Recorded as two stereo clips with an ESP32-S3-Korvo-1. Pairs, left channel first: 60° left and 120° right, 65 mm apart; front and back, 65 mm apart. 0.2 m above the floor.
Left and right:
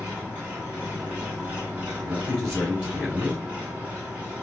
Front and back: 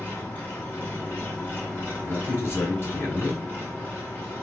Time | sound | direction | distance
0.0 | an engine running | 55° right | 1.7 m
2.0 | a man speaking | 50° right | 2.5 m